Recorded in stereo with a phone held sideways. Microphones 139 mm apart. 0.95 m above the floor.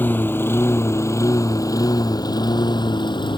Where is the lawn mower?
15° left (ahead or behind); by 3.4 s 35° left (ahead or behind).